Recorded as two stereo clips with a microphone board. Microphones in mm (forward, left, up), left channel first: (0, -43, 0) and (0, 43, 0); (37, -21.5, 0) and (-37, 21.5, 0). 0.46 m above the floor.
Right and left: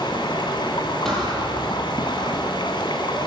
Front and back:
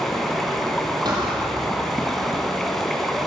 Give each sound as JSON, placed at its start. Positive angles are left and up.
{"t": 0.0, "sound": "running water", "azimuth_deg": -120, "distance_m": 3.5}
{"t": 1.1, "sound": "a thud", "azimuth_deg": -175, "distance_m": 7.0}